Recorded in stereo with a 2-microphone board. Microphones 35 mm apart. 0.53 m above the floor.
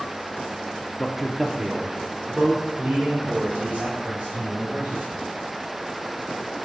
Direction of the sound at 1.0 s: 5° left (ahead or behind).